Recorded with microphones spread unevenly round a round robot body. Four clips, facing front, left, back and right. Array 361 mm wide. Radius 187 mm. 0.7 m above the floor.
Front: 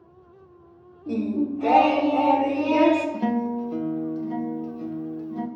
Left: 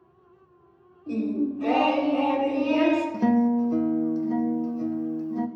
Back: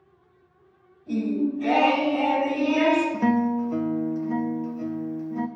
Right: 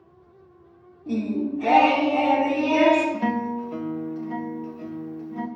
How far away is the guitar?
About 0.8 m.